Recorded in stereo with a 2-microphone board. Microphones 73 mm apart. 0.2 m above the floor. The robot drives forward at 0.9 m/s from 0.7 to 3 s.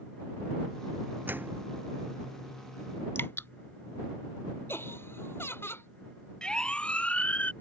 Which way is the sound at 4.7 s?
35° left (ahead or behind).